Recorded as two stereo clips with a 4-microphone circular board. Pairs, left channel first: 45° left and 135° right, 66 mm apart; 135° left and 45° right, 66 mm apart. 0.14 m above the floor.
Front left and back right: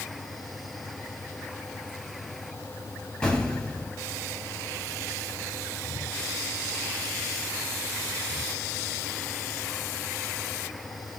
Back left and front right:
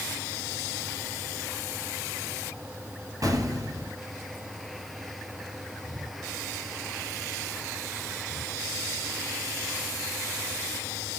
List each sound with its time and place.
3.2 s an explosion: 30° right, 1.4 m